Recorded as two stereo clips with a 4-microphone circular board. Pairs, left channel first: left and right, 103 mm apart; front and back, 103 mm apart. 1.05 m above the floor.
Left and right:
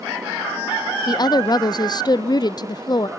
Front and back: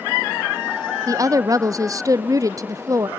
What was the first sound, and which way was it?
A woman speaking, 130° left.